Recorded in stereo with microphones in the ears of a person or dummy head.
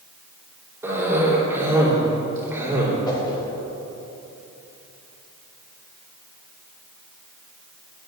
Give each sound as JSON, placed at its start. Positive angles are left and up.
{"t": 0.8, "sound": "a cough", "side_deg": -15, "distance_m": 3.5}
{"t": 3.1, "sound": "a whoosh", "side_deg": 25, "distance_m": 2.5}